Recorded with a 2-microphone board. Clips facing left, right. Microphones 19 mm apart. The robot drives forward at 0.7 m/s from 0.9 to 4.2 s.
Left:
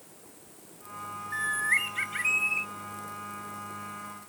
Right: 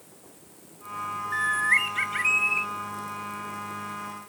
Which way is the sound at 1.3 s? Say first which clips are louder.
Right 4 dB; 15° right (ahead or behind).